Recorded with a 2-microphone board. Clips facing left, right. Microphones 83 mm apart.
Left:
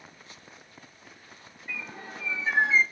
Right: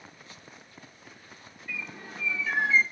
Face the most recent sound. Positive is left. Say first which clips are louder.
# left 1 dB
turn(degrees=35)  # may be behind; listen again after turning